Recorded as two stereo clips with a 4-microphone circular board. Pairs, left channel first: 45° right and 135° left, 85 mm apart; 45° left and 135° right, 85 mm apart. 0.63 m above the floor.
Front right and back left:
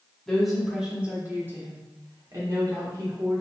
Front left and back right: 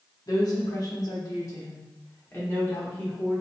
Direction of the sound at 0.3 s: 40° left.